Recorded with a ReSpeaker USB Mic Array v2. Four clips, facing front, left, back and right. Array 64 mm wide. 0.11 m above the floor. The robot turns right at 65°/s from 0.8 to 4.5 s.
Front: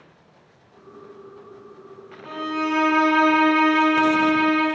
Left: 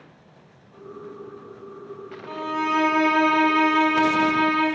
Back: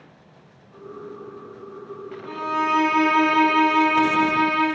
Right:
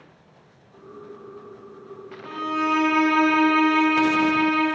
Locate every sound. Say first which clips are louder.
2.2 s a violin: right 1 dB, back 2 dB; 65° right, 0.9 m; by 4.7 s 85° left, 0.9 m